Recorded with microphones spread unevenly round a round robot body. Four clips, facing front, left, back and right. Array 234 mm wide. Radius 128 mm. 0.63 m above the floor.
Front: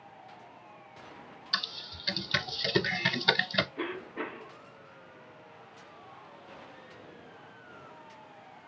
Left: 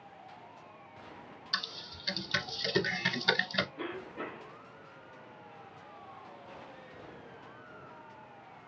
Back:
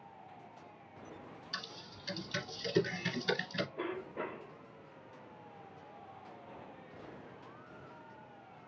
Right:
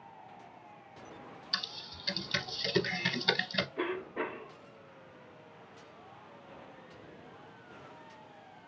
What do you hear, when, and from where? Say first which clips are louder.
1.5 s typing on a keyboard: left 4 dB, front 11 dB; 5° right, 0.9 m
3.8 s a cough: right 5 dB, front 3 dB; 60° right, 2.5 m